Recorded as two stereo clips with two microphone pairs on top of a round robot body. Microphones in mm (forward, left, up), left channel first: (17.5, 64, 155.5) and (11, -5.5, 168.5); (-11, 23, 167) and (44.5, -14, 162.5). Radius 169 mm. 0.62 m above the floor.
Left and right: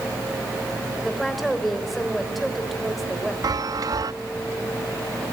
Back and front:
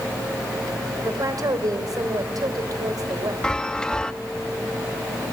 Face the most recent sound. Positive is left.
turn(degrees=-130)